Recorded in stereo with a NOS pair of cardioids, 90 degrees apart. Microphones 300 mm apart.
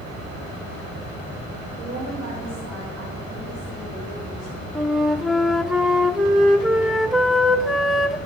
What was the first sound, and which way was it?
A woman speaking, 70° right.